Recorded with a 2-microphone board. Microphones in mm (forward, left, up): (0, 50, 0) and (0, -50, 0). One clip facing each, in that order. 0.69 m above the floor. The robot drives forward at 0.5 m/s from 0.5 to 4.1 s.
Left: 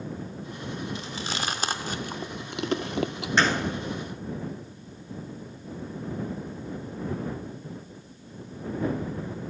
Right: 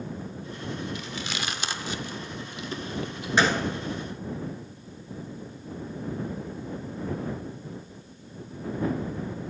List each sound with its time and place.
0.9 s chewing: 30° left (ahead or behind), 1.2 m; by 3.3 s 70° left (ahead or behind), 0.7 m
3.4 s a gunshot: 5° right (ahead or behind), 1.6 m